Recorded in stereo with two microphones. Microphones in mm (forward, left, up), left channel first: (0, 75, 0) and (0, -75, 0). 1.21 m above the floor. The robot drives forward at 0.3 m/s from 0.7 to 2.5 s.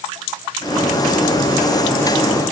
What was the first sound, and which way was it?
Only background noise.